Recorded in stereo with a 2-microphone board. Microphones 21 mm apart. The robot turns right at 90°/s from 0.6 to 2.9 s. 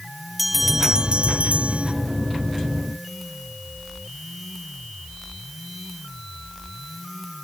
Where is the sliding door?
No sliding door in this recording.